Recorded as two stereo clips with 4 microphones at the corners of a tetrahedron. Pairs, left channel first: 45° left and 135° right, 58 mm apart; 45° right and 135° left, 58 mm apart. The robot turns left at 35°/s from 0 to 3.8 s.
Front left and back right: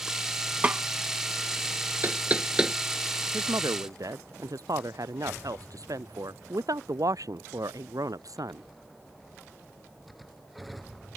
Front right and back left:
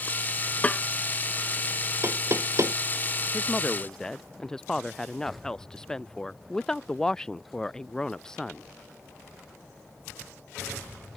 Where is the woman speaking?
110° right; by 8.7 s 125° right.